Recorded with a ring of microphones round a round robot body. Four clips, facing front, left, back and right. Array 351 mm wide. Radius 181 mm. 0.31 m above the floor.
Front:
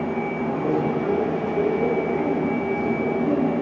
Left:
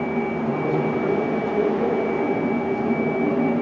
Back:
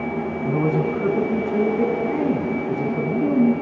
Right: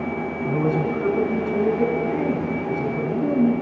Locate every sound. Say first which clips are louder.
0.5 s a man speaking: right 4 dB, back 3 dB; 170° right, 4 m